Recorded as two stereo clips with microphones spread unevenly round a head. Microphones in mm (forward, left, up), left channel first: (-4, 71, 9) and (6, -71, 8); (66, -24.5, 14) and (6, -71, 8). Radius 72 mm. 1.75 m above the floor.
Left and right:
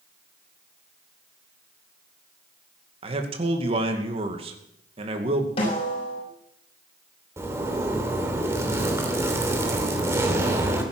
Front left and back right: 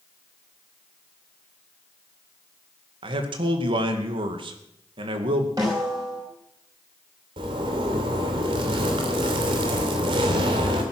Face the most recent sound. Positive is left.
turn(degrees=-160)